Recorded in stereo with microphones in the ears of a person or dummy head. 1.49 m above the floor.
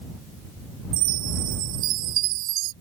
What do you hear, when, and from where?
0.9 s a chime: 50° right (ahead or behind)